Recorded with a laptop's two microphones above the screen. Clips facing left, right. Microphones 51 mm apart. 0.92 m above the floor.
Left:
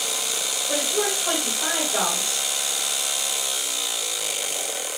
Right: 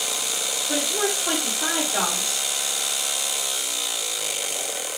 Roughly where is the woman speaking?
Centre.